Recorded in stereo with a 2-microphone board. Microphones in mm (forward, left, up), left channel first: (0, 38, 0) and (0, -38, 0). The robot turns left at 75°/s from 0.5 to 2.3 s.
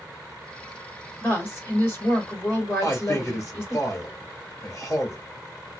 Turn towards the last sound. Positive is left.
turn(degrees=45)  # may be behind; listen again after turning